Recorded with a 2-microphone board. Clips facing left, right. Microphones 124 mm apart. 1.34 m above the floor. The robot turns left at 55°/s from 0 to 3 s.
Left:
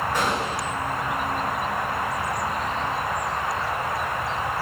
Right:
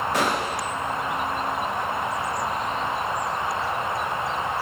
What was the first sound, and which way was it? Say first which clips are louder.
A gunshot: right 1 dB; 90° right.